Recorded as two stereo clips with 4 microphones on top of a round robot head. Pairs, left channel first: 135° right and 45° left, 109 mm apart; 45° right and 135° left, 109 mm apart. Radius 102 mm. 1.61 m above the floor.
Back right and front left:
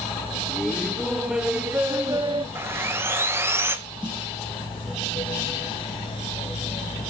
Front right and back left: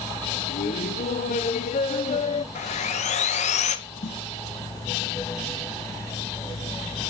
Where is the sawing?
25° right, 1.5 m.